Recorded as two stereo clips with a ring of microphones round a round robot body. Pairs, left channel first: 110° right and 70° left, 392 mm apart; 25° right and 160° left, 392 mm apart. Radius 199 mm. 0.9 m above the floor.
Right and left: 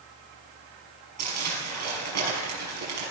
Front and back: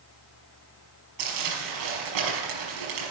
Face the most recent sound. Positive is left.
turn(degrees=120)